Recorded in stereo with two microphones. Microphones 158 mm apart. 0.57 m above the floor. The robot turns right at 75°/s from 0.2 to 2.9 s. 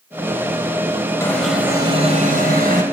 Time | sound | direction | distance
1.2 | an alarm | 160° left | 4 m